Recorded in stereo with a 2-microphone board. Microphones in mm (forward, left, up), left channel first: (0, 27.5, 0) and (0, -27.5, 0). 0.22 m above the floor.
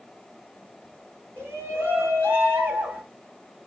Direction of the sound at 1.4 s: 40° right (ahead or behind).